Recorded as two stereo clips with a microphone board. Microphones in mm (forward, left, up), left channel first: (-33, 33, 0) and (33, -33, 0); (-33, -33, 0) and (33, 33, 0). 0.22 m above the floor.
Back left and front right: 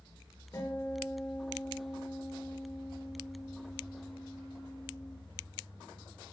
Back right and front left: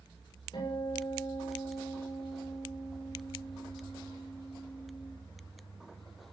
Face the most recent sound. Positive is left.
turn(degrees=-170)